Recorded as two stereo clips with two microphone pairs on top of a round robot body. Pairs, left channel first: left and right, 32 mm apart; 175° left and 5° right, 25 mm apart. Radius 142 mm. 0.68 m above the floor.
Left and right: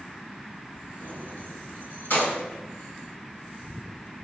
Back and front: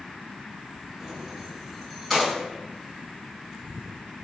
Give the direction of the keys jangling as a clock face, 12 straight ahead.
9 o'clock.